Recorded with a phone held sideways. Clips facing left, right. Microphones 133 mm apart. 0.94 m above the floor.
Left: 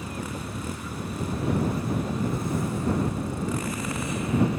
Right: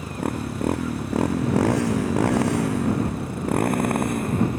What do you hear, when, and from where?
0.0 s a motorcycle: 55° right (ahead or behind); by 4.6 s 45° right (ahead or behind)